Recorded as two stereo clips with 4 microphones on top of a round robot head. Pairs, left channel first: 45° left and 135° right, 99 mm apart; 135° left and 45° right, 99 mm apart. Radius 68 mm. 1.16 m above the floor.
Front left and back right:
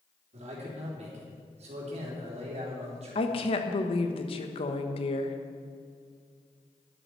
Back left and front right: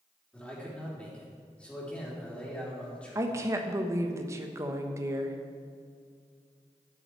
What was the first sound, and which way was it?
A man speaking, 145° right.